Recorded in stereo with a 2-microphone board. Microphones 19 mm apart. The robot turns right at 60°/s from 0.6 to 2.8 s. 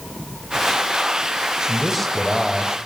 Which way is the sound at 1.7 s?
5° right (ahead or behind).